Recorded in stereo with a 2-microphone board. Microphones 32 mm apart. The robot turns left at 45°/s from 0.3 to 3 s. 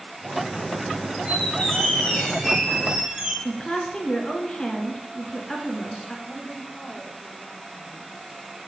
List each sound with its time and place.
1.2 s a squeak: 45° left, 6 m; by 3.4 s 35° right, 6 m
3.5 s a woman speaking: 15° left (ahead or behind), 1.6 m
6.2 s a woman speaking: 20° left (ahead or behind), 4.5 m